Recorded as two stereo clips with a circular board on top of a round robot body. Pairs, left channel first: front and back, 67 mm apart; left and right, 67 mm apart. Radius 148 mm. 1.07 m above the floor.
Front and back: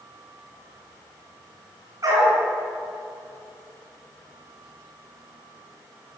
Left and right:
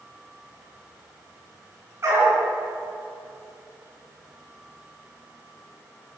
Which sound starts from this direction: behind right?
A dog barking, at 2.0 s.